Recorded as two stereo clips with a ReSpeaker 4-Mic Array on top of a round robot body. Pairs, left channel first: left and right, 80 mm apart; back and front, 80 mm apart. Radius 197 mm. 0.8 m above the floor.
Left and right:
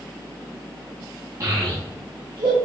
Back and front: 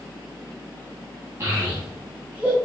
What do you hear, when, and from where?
1.4 s a child speaking: 50° right, 1.4 m; by 2.6 s 70° right, 2 m